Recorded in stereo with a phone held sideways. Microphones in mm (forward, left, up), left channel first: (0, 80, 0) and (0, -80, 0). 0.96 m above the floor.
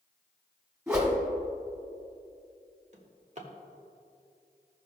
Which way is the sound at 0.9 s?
15° right (ahead or behind).